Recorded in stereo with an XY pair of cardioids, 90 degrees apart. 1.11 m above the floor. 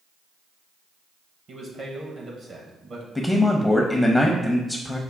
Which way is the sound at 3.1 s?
10° left.